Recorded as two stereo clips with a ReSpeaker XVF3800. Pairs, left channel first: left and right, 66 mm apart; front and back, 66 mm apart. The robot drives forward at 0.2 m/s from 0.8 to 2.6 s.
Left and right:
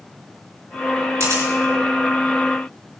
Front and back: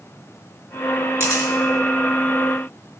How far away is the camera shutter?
About 3.5 m.